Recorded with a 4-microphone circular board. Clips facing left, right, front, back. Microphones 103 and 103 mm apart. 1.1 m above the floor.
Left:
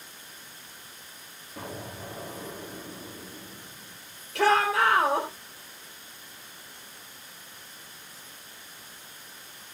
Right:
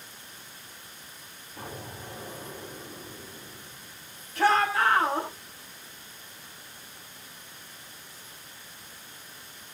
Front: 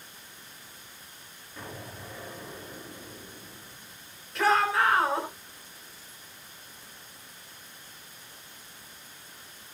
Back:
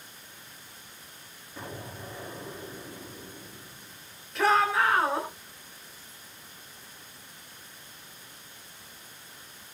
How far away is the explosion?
About 7 m.